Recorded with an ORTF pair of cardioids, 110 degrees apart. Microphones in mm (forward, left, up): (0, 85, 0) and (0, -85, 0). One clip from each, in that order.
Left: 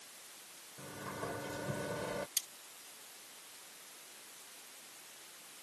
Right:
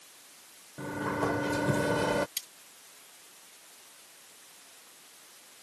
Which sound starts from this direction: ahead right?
A sliding door, at 0.8 s.